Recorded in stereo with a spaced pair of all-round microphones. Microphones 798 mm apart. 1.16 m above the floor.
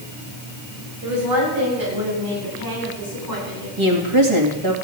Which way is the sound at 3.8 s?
35° right (ahead or behind).